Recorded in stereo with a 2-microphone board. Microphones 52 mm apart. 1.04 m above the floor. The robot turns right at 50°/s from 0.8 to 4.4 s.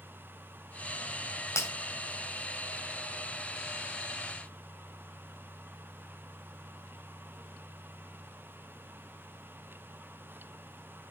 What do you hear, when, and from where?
1.6 s breaking glass: 70° left (ahead or behind), 2.5 m; by 1.7 s 65° left (ahead or behind), 2.5 m